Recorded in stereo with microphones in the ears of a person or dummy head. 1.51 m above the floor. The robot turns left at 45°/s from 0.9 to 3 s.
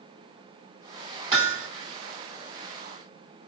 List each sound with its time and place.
1.3 s hammering: 30° right (ahead or behind), 3.5 m; by 1.7 s 50° right (ahead or behind), 3.5 m